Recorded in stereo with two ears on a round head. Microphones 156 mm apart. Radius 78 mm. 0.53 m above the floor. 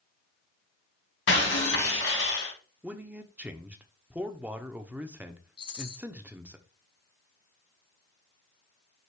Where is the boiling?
No boiling in this recording.